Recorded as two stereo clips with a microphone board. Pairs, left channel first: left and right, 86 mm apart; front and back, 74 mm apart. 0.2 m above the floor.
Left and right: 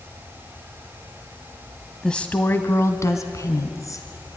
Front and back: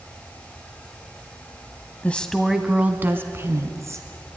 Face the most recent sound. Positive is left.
turn(degrees=135)